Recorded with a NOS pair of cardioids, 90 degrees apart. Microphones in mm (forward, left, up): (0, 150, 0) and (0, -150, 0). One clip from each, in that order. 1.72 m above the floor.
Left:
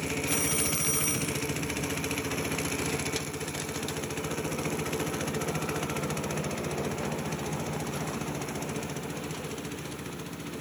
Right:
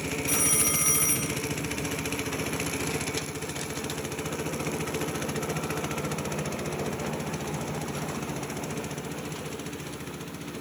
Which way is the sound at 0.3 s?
25° right.